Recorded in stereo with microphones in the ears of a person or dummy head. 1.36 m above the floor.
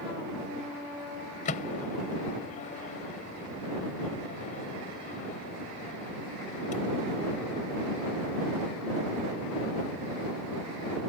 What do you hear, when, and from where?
1.4 s a microwave: 40° left (ahead or behind)